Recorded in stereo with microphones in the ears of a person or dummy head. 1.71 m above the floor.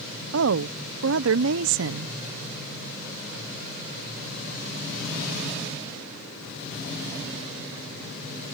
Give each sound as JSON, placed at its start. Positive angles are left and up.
{"t": 0.3, "sound": "a woman speaking", "side_deg": -75}